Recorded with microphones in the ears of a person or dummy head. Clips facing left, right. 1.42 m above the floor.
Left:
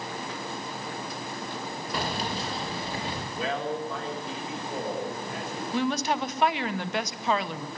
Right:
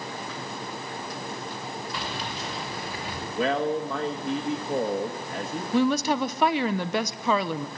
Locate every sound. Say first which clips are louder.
1.9 s keys jangling: left 3 dB; 45° left (ahead or behind), 1.2 m; by 3.2 s 30° left (ahead or behind), 2.5 m
3.4 s a man speaking: right 6 dB; 55° right (ahead or behind), 1.6 m
5.7 s a woman speaking: right 5 dB; 85° right, 0.7 m